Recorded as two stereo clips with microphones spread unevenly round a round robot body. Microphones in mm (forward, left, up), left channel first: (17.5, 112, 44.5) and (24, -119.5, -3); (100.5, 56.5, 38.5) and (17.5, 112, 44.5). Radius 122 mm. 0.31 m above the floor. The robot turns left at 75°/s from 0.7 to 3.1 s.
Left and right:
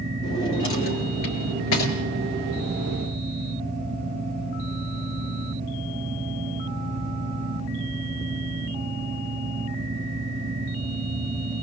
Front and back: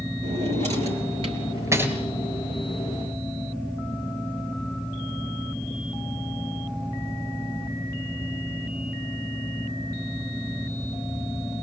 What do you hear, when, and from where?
0.2 s a drawer: 160° left, 3.5 m; by 1.9 s 70° left, 3.5 m